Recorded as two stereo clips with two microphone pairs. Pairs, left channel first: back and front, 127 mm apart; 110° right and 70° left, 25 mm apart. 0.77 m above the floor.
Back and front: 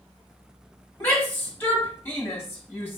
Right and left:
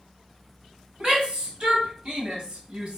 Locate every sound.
1.0 s a shout: 105° left, 1.6 m